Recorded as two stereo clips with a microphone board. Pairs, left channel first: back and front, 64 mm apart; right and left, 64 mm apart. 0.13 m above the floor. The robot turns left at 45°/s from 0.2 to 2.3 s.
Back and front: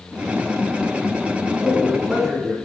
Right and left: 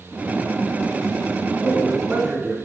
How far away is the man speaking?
About 1.8 m.